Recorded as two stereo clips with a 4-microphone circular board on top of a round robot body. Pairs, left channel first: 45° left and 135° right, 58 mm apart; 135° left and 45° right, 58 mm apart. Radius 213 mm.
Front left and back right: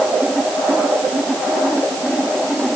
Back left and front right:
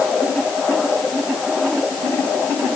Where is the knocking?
No knocking in this recording.